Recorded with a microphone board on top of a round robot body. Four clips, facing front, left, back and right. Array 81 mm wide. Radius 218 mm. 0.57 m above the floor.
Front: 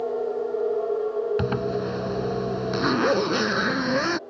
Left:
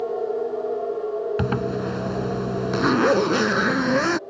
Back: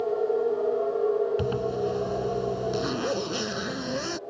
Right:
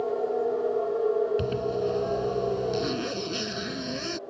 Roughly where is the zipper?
Ahead left.